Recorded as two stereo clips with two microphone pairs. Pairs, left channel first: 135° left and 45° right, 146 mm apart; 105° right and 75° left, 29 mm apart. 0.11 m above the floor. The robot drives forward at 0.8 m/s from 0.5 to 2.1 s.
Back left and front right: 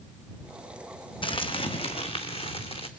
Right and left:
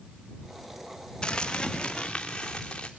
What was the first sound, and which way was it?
Crumpling, 170° right.